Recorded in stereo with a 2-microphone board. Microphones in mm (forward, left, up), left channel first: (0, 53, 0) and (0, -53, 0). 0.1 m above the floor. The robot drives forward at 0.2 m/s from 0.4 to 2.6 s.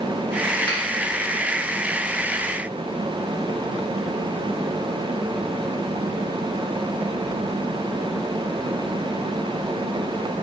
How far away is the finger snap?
About 1.0 m.